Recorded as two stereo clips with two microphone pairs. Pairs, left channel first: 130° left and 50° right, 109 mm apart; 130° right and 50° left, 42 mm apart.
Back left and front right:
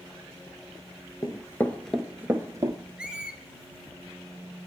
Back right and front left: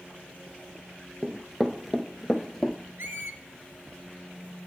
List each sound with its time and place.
1.2 s running footsteps: 125° left, 0.7 m; by 2.8 s 45° right, 0.8 m
3.0 s a squeak: 25° left, 0.7 m